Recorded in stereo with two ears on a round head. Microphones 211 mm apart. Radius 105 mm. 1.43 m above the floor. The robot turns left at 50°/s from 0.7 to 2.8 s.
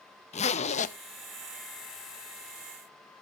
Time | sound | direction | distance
0.3 | a zipper | 30° left (ahead or behind) | 0.8 m